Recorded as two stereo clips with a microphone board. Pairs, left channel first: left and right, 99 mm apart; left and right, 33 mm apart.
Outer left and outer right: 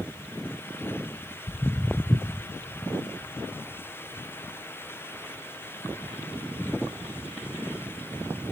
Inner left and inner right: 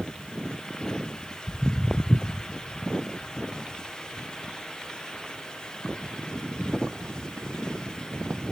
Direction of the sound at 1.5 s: 35° left (ahead or behind).